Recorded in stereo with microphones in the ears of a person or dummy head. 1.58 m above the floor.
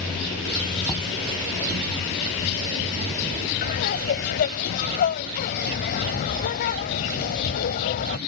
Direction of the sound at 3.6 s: 50° left (ahead or behind).